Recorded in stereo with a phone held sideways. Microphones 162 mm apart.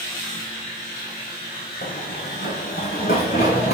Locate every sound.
1.8 s running footsteps: 70° left (ahead or behind), 3 m; by 3.7 s 65° left (ahead or behind), 5.5 m